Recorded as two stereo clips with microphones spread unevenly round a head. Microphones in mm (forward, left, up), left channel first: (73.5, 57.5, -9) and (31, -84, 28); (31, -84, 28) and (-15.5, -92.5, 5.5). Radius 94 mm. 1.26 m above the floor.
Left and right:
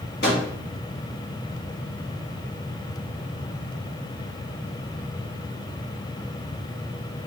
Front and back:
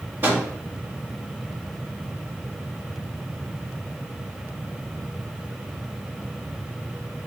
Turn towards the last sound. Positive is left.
turn(degrees=120)